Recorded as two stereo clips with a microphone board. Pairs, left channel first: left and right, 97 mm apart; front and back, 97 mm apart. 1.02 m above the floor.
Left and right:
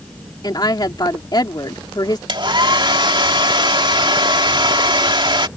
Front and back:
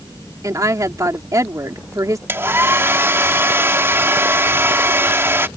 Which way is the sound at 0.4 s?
130° left.